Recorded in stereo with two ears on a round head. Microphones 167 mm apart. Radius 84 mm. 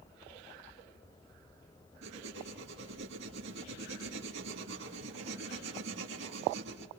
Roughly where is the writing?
Right.